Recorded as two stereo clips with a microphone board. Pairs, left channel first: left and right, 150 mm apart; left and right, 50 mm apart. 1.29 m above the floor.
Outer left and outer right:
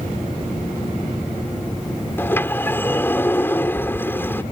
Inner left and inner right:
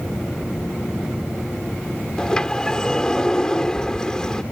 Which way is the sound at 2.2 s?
15° left (ahead or behind).